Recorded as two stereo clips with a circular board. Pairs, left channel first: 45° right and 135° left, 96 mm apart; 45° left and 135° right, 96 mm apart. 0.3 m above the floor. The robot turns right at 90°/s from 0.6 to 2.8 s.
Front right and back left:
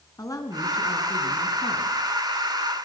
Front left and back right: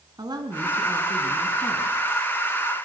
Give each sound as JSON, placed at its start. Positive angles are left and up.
{"t": 0.2, "sound": "a woman speaking", "azimuth_deg": -95, "distance_m": 3.0}